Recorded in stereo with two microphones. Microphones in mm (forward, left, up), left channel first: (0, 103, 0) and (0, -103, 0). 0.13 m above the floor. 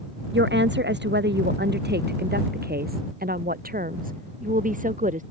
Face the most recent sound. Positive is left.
turn(degrees=-40)  # may be behind; listen again after turning